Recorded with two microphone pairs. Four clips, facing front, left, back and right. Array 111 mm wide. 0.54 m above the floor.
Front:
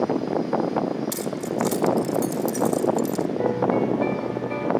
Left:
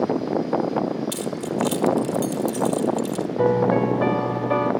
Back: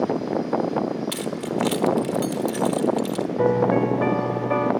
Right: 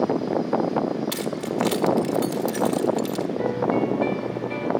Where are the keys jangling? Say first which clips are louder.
Even, even; 120° right, 1.2 m.